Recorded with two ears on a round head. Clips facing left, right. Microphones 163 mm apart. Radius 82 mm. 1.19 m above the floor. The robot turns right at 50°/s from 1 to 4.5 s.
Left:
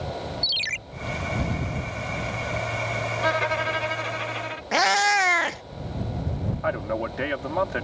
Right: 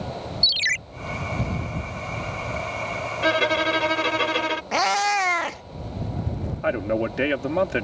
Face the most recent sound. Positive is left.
turn(degrees=-35)  # may be behind; listen again after turning